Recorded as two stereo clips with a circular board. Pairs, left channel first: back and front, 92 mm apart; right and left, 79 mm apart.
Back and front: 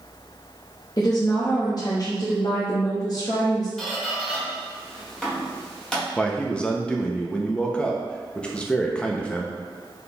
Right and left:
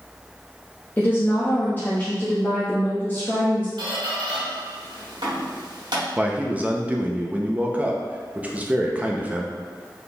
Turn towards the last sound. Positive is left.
turn(degrees=120)